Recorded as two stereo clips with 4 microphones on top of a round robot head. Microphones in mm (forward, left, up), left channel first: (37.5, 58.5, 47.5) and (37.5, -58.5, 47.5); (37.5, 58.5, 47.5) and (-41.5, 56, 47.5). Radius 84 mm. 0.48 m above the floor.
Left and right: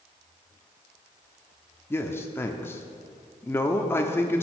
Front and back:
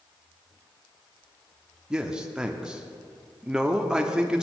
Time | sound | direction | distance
1.9 | a man speaking | 120° left | 0.8 m